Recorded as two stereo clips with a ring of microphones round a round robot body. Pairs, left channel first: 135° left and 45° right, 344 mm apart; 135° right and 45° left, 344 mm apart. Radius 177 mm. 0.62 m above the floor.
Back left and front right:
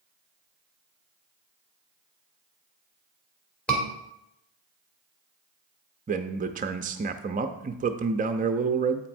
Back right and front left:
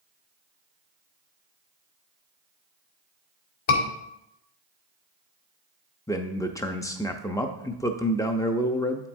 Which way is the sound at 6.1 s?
70° right.